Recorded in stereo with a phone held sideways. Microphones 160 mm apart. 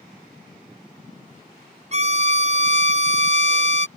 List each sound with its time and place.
1.9 s a violin: 45° right (ahead or behind)